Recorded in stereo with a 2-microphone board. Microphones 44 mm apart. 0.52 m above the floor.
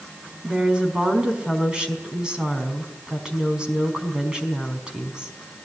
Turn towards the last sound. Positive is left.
turn(degrees=-20)  # may be behind; listen again after turning